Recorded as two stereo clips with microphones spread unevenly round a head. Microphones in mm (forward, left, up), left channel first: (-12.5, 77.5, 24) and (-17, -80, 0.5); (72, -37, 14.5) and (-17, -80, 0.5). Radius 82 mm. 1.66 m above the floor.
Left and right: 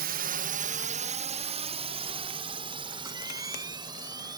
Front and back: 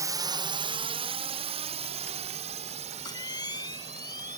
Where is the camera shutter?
20° right.